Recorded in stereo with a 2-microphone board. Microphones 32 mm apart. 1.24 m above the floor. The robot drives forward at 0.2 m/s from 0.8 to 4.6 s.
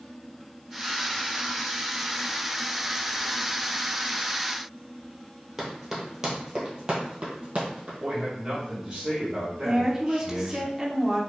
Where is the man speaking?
20° right (ahead or behind), 1.9 m.